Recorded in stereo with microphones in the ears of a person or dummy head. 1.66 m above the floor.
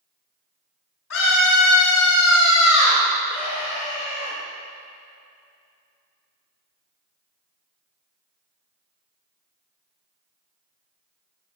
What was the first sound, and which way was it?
A scream, 80° left.